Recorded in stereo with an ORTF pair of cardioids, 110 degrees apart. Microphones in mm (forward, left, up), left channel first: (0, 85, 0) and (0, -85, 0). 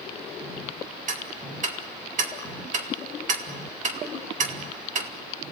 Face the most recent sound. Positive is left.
turn(degrees=-45)